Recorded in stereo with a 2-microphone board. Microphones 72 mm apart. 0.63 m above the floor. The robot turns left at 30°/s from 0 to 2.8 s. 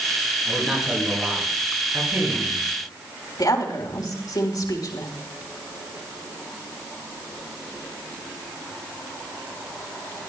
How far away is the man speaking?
About 9 m.